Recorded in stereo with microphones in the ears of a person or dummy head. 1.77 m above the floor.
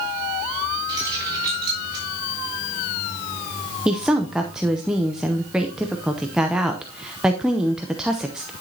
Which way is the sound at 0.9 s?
20° right (ahead or behind).